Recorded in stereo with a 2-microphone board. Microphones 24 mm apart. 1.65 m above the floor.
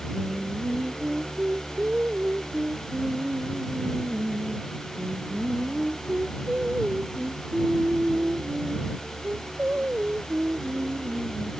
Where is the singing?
75° right (ahead or behind).